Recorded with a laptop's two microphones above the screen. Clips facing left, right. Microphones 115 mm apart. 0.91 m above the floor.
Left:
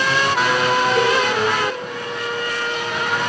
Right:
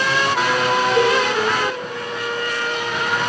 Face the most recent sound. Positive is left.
turn(degrees=-30)  # may be behind; listen again after turning